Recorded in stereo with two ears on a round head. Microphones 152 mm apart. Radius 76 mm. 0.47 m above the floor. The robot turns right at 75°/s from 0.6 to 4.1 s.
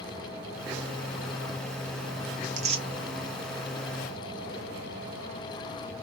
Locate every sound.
2.4 s tearing paper: 55° right (ahead or behind), 0.9 m; by 2.9 s 25° right (ahead or behind), 0.9 m